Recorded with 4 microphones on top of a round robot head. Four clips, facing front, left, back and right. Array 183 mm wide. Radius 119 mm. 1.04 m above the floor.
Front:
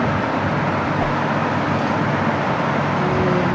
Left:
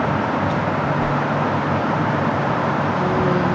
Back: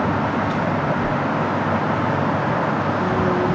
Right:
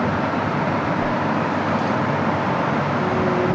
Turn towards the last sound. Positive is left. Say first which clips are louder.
# left 1 dB, front 1 dB
turn(degrees=15)